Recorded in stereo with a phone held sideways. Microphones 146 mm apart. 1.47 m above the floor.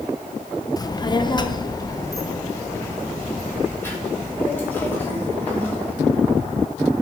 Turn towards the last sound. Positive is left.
turn(degrees=15)  # may be behind; listen again after turning